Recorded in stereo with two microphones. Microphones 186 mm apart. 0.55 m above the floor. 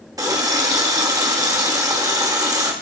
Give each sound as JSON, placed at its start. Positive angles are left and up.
{"t": 0.2, "sound": "a running tap", "side_deg": -20, "distance_m": 0.8}